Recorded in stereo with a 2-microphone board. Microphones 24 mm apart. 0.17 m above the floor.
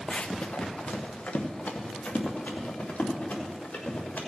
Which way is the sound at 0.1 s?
40° left (ahead or behind).